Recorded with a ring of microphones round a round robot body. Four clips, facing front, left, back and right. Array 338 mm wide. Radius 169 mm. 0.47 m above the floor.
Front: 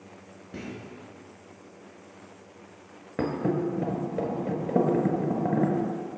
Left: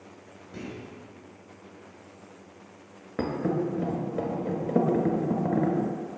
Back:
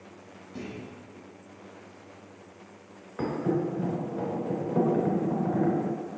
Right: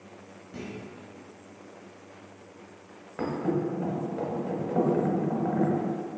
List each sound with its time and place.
0.5 s a clunk: 5° left, 3 m
3.2 s a thud: 40° left, 1.1 m